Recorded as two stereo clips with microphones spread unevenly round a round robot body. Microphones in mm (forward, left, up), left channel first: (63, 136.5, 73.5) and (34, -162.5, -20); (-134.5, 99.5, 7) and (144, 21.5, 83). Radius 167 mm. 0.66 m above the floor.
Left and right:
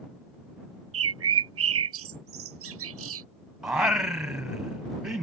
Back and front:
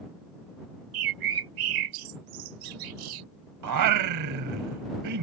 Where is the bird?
45° right.